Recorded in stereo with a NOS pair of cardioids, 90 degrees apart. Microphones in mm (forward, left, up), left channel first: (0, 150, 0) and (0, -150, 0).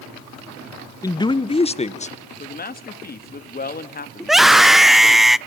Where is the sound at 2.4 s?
30° left, 2.5 m.